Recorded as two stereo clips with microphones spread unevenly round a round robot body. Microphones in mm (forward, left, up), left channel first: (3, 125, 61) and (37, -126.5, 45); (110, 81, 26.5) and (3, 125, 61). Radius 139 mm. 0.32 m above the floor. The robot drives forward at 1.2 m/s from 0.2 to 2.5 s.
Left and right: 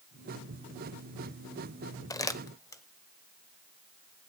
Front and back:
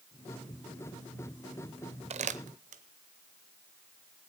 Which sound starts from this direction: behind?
Crumpling, at 2.1 s.